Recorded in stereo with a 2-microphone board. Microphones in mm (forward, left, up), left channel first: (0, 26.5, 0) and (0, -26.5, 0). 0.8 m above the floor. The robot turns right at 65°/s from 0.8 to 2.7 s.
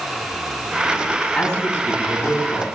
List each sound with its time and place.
1.3 s a man speaking: 5° left, 6 m; by 2.6 s 90° left, 6 m